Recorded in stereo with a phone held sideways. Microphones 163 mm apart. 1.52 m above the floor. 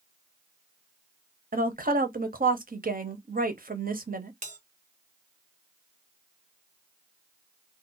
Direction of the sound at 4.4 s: 50° right (ahead or behind).